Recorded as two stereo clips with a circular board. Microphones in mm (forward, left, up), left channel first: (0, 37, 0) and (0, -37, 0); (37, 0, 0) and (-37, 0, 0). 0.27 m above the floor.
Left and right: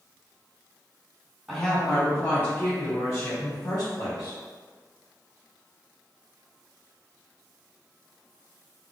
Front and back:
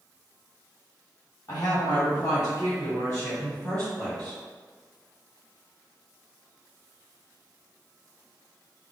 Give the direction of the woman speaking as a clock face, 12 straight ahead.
12 o'clock.